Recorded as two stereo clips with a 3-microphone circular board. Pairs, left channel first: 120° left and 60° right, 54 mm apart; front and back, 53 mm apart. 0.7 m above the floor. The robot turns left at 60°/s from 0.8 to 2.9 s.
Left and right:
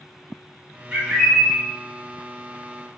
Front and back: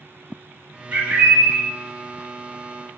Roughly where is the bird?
Behind right.